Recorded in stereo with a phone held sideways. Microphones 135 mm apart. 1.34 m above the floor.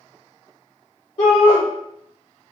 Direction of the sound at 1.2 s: 80° left.